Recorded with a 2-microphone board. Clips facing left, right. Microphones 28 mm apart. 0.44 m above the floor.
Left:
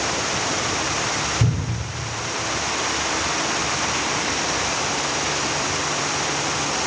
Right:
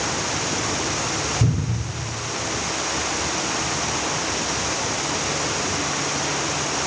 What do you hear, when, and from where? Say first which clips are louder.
1.4 s a cupboard door: even; 50° left (ahead or behind), 1.4 m